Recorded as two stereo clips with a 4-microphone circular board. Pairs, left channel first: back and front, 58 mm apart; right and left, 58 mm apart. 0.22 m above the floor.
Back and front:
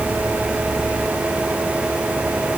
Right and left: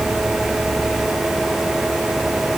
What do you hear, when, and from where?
Only background noise.